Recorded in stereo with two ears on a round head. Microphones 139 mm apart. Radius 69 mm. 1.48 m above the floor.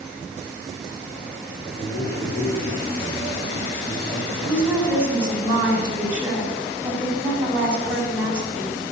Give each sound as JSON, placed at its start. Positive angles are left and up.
{"t": 1.8, "sound": "a man speaking", "side_deg": 30, "distance_m": 3.5}
{"t": 4.4, "sound": "a woman speaking", "side_deg": -10, "distance_m": 6.5}